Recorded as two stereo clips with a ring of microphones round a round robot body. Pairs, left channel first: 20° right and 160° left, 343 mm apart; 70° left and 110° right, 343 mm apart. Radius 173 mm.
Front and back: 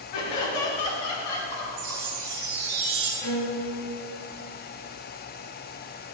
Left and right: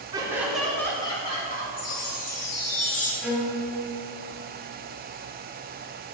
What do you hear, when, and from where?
0.1 s laughter: 35° right, 2 m; by 2.0 s 5° left, 3 m
1.8 s a chime: 115° left, 1.5 m
3.2 s a violin: 20° right, 2.0 m